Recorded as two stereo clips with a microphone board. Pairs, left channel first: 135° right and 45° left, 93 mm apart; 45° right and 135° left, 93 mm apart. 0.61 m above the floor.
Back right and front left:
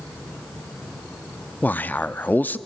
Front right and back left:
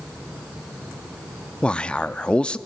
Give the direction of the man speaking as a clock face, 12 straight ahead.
3 o'clock.